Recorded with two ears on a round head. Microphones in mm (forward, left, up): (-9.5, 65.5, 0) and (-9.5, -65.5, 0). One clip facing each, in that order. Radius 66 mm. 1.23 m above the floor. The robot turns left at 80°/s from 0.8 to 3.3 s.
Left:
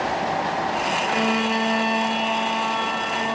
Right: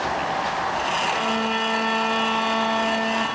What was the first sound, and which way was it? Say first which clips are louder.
A violin: left 2 dB; 90° left.